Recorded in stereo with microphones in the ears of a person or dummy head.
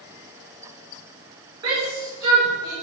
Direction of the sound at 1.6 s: 30° right (ahead or behind).